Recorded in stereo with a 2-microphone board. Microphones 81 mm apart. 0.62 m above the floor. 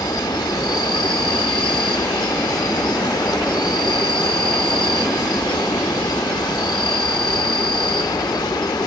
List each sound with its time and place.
0.0 s an insect: 65° left (ahead or behind)